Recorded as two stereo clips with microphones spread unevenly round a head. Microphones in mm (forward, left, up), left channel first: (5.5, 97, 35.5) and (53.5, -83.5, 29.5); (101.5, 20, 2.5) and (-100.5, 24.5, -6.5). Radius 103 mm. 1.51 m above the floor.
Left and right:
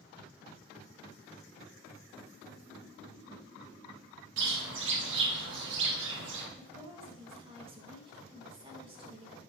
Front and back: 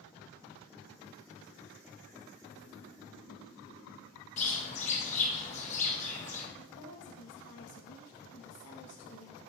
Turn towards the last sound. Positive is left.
turn(degrees=-15)